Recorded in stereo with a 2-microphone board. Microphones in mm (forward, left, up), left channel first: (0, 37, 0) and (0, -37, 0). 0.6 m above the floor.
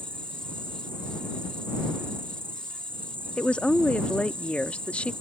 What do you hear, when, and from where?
0.0 s an insect: 25° right (ahead or behind)
3.4 s a woman speaking: 15° left (ahead or behind)